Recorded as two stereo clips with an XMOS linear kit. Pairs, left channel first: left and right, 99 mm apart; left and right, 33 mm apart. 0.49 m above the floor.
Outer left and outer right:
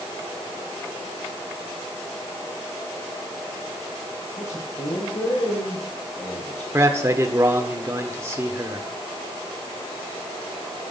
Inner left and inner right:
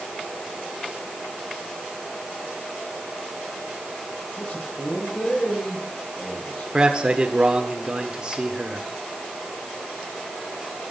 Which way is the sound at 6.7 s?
25° right (ahead or behind).